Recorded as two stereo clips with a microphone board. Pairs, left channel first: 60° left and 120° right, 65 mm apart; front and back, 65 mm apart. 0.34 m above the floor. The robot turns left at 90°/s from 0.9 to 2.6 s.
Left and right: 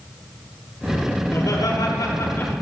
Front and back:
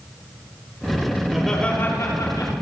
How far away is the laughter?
About 7 m.